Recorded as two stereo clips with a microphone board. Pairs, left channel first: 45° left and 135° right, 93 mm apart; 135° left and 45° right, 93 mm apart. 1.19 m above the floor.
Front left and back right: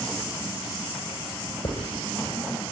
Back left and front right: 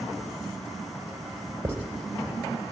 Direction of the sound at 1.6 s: 20° left.